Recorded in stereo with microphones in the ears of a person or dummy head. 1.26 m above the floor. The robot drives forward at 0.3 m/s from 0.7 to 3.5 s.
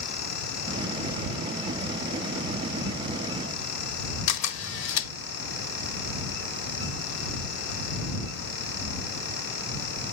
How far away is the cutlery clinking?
No cutlery clinking in this recording.